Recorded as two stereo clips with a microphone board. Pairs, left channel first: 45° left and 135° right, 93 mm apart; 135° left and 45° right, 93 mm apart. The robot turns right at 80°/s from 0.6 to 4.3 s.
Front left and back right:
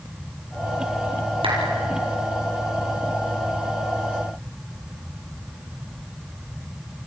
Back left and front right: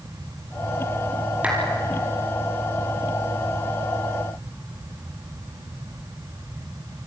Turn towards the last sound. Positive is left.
turn(degrees=110)